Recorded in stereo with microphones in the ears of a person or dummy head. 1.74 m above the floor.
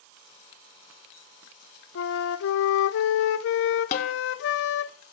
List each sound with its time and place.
1.9 s a flute: 70° left (ahead or behind), 0.7 m
3.9 s a snare drum: 40° left (ahead or behind), 0.8 m